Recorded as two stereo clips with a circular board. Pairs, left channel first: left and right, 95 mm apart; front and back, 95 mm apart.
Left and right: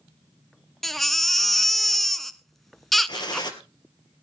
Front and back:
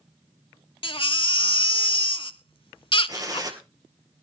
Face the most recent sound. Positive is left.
turn(degrees=130)